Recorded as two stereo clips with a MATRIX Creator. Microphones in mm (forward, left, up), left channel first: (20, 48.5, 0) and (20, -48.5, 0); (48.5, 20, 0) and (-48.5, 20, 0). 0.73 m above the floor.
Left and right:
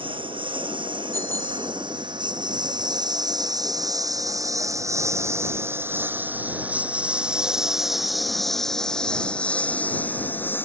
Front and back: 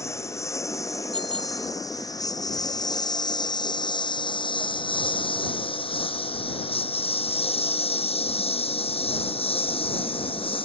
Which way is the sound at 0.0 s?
60° right.